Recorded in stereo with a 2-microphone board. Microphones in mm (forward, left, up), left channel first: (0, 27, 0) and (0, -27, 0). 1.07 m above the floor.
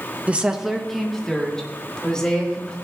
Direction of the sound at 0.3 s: 25° right (ahead or behind).